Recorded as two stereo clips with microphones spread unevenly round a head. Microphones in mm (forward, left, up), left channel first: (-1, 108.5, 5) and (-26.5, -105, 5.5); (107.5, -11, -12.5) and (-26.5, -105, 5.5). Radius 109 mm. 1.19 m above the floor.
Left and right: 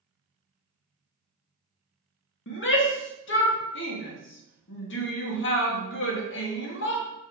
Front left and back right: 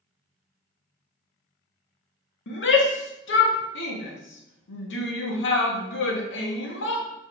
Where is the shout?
45° left, 1.5 m.